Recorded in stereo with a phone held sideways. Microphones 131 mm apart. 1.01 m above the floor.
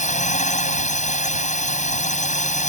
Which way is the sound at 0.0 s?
80° left.